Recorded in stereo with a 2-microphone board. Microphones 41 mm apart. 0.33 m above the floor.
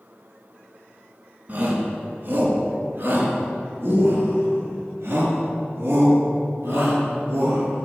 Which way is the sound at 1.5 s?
50° right (ahead or behind).